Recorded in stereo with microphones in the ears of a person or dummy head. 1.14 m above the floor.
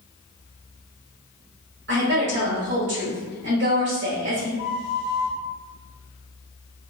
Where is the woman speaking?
60° right (ahead or behind), 1.3 m.